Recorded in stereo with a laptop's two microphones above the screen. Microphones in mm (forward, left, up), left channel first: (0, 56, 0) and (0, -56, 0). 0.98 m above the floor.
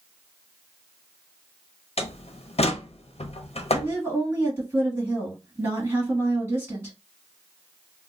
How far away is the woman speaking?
About 1.6 m.